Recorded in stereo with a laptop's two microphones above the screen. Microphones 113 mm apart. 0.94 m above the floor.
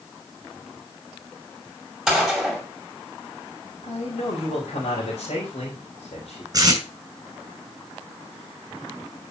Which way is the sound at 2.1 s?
5° right (ahead or behind).